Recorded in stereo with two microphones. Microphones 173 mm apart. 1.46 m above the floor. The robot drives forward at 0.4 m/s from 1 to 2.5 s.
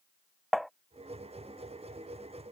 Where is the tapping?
Centre (ahead or behind).